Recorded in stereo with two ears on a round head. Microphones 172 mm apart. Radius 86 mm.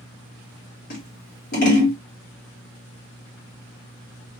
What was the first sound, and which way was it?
Scissors, 50° left (ahead or behind).